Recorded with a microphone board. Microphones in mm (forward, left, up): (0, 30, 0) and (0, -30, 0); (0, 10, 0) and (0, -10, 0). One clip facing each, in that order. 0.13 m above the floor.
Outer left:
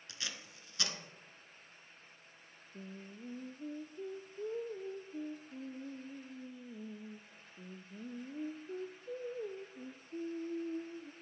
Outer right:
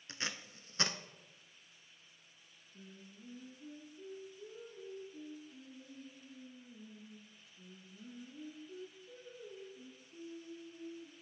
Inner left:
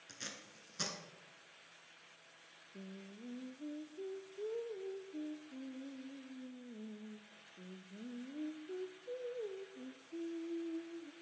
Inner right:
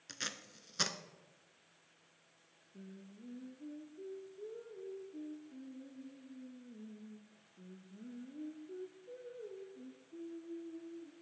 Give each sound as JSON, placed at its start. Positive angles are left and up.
{"t": 0.1, "sound": "tape being pulled", "side_deg": -35, "distance_m": 0.5}
{"t": 2.7, "sound": "singing", "side_deg": 60, "distance_m": 0.6}